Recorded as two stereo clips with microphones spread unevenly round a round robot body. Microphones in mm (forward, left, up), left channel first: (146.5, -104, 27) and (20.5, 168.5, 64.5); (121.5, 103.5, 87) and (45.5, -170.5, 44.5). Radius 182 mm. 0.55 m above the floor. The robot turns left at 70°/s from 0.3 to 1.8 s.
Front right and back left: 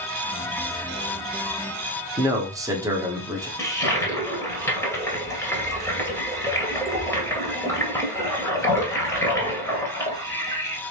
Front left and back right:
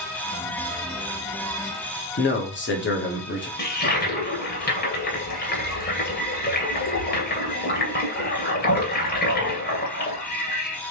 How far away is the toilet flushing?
About 2 m.